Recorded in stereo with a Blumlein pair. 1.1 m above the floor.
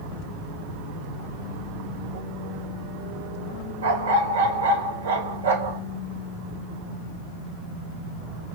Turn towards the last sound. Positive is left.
turn(degrees=-60)